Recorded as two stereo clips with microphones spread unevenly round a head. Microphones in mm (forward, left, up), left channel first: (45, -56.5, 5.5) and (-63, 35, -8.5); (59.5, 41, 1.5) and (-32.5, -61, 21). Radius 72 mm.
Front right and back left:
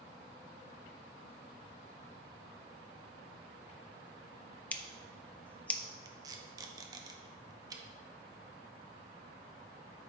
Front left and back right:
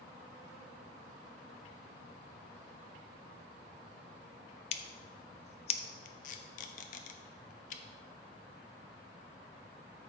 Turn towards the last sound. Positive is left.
turn(degrees=75)